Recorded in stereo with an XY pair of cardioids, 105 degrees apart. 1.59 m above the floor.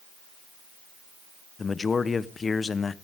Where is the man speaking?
35° left, 1.0 m.